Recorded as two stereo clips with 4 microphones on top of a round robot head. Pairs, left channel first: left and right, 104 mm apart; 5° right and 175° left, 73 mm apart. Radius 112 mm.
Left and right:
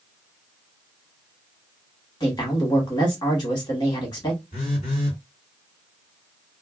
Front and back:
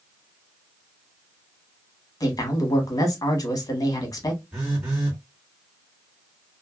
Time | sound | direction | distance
2.2 | a man speaking | 35° left | 1.3 m
4.5 | a phone buzzing | 95° left | 1.8 m